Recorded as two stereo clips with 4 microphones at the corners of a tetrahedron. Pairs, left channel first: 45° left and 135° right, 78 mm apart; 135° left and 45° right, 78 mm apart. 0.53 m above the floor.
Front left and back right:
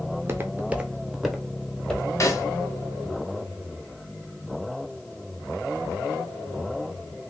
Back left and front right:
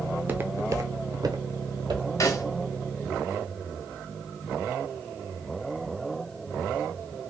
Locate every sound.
0.1 s footsteps: 115° right, 0.6 m; by 2.1 s 35° right, 1.1 m
2.2 s a snare drum: 90° left, 0.9 m